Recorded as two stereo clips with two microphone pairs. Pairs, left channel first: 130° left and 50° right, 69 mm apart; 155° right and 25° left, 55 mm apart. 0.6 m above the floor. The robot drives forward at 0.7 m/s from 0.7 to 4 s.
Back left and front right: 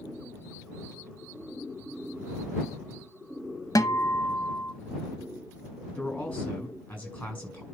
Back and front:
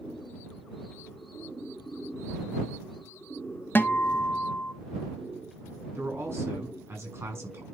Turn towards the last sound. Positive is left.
turn(degrees=65)